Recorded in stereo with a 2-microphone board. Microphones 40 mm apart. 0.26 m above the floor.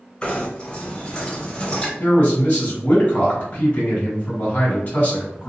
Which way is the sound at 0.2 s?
25° left (ahead or behind).